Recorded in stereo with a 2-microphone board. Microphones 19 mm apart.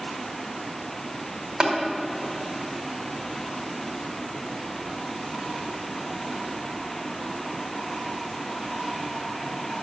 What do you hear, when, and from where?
1.6 s tapping: 60° right (ahead or behind), 2.5 m